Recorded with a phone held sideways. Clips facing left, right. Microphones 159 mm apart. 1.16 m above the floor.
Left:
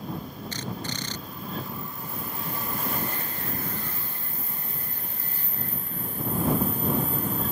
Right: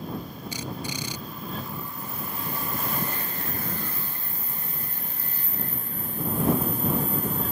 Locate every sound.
0.5 s a drill: 10° right (ahead or behind)